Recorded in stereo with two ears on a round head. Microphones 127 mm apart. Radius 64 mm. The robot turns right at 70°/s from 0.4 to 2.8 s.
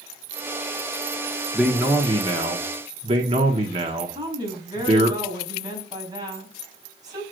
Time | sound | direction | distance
1.5 | a man speaking | 175° right | 1.0 m
4.1 | a woman speaking | 25° right (ahead or behind) | 4.5 m